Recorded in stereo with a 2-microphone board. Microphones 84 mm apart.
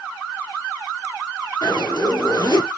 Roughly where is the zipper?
Left.